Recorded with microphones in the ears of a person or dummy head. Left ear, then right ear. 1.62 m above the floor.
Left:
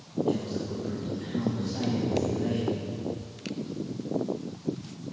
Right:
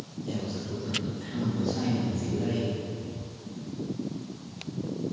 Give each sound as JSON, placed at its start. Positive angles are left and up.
{"t": 0.3, "sound": "a man speaking", "side_deg": 10, "distance_m": 0.8}